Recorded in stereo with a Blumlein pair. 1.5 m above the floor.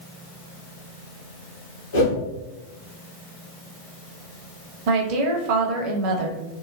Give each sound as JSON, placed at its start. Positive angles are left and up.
{"t": 1.9, "sound": "a whoosh", "azimuth_deg": 65, "distance_m": 1.6}
{"t": 4.9, "sound": "a woman speaking", "azimuth_deg": -45, "distance_m": 1.0}